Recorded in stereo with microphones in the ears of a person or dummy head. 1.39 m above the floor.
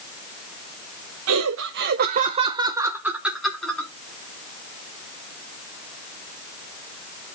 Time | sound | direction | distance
1.3 | laughter | 80° right | 1.0 m